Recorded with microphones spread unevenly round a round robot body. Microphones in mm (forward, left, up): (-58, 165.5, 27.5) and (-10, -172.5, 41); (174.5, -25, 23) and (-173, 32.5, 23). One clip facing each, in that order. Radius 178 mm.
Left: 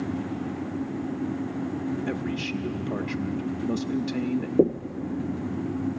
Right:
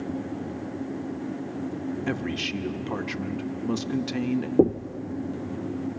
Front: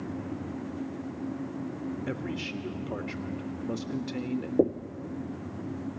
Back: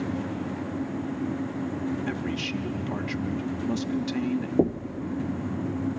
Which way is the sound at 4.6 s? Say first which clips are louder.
Right 1 dB, even; 160° right.